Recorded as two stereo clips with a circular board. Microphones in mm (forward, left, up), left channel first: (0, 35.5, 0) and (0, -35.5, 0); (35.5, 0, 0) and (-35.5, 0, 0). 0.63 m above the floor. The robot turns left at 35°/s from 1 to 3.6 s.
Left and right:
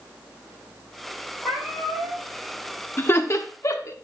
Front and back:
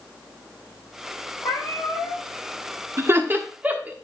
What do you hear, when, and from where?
1.4 s a cat meowing: straight ahead, 4 m; by 2.2 s 30° right, 4 m
3.0 s laughter: 140° left, 1.1 m; by 3.9 s 120° left, 1.1 m